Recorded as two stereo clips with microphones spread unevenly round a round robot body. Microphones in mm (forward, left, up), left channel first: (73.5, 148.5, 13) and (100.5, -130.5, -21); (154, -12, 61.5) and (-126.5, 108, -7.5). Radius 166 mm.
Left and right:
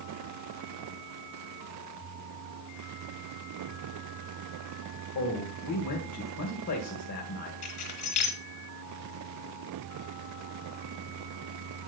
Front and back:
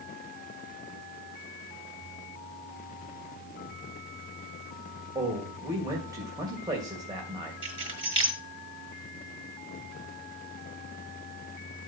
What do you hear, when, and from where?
5.2 s a man speaking: 95° left, 2 m
7.6 s keys jangling: 85° left, 4.5 m